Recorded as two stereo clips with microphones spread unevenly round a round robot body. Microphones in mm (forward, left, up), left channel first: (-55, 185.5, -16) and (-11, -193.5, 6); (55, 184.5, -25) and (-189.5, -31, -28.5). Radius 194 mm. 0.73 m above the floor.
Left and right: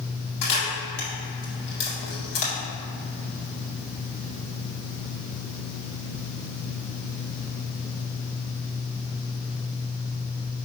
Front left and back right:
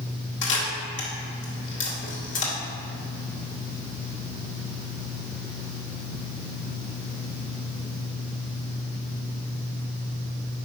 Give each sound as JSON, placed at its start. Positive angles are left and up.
{"t": 0.4, "sound": "a camera shutter", "azimuth_deg": 95, "distance_m": 2.0}